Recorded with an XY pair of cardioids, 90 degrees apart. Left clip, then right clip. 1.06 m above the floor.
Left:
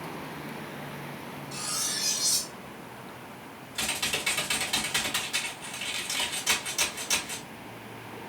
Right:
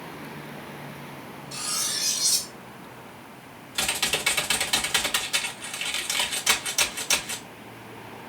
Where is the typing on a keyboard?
65° right, 0.9 m.